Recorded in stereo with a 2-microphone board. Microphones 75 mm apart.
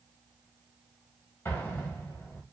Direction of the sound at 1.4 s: 35° left (ahead or behind).